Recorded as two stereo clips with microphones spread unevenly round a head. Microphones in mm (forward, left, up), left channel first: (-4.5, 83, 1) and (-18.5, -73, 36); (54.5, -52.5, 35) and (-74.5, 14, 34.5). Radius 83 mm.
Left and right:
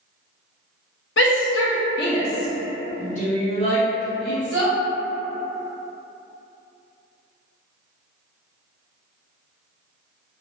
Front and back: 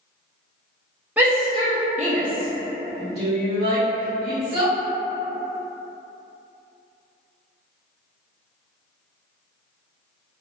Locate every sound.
1.2 s a shout: 70° left, 0.7 m; by 4.7 s 145° left, 1.9 m